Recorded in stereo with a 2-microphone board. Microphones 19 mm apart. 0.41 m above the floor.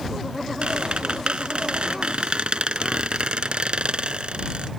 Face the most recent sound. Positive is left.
turn(degrees=-60)  # may be behind; listen again after turning